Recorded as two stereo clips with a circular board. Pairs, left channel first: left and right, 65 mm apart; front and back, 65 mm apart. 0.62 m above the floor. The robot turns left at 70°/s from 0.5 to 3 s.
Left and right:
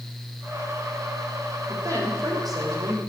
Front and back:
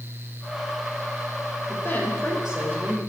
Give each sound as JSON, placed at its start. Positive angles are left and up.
{"t": 1.7, "sound": "a woman speaking", "azimuth_deg": -45, "distance_m": 3.0}